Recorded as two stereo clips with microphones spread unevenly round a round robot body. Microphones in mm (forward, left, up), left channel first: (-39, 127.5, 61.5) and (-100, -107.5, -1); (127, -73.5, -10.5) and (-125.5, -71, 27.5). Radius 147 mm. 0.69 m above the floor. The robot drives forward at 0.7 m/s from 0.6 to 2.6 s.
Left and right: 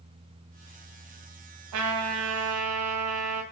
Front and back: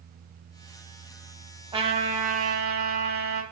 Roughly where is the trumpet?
Right.